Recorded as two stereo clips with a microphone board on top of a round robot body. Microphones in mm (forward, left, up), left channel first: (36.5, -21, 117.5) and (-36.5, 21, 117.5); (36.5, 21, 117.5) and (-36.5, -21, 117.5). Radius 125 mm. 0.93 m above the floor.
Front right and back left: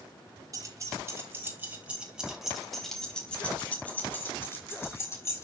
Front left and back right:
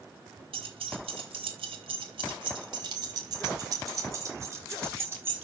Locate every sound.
0.5 s keys jangling: 160° right, 3 m; by 5.4 s 85° right, 4.5 m